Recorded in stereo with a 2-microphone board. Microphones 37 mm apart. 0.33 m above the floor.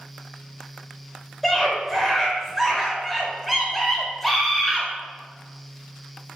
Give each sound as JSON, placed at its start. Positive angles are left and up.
{"t": 1.4, "sound": "a scream", "side_deg": 5, "distance_m": 1.0}